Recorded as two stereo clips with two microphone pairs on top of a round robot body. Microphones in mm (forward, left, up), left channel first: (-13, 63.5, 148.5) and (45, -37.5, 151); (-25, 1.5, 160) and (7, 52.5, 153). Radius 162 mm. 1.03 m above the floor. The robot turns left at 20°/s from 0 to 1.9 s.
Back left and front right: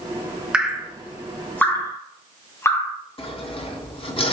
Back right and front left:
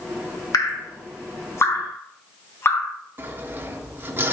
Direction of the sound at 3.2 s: 100° left.